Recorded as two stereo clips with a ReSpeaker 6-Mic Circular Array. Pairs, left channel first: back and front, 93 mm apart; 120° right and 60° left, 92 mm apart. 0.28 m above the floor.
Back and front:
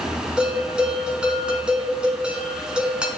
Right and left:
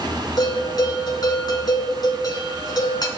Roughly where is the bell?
Right.